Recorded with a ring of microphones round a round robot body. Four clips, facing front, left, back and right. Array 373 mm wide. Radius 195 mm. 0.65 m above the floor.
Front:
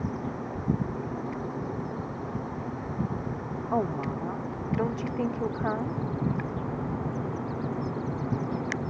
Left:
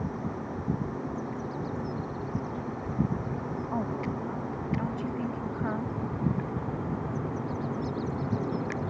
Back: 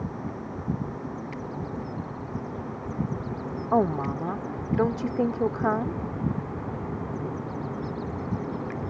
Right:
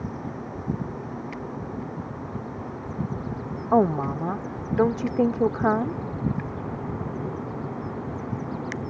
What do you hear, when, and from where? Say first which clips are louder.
3.7 s a woman speaking: right 13 dB, back 5 dB; 110° right